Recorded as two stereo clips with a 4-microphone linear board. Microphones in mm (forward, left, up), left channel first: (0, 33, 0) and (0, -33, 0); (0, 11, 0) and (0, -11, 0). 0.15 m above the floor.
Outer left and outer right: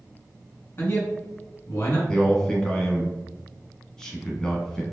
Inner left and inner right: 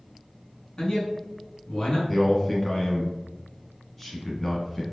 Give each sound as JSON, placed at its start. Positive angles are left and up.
{"t": 0.8, "sound": "a man speaking", "side_deg": 35, "distance_m": 1.3}
{"t": 2.1, "sound": "a man speaking", "side_deg": 10, "distance_m": 1.0}